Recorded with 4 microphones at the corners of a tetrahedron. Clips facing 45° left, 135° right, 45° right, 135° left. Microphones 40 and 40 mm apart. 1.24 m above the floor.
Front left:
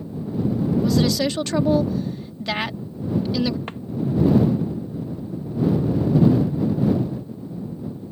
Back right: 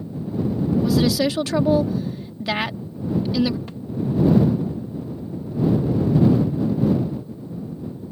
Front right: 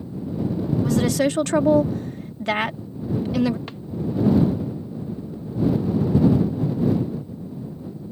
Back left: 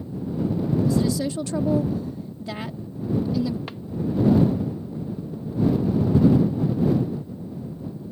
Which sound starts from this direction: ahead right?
A woman speaking, at 0.8 s.